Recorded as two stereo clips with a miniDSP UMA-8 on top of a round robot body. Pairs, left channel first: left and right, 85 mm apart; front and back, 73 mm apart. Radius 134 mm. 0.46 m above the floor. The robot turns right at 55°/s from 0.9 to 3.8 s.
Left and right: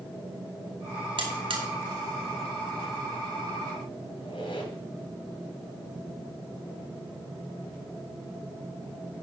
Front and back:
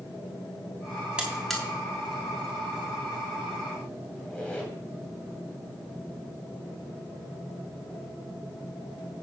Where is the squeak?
75° left, 2.5 m.